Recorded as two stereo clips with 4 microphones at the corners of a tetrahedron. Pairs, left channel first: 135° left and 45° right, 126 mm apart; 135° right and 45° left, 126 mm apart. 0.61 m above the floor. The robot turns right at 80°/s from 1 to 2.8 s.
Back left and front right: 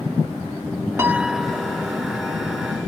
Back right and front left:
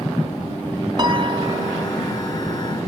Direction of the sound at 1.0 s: 10° left.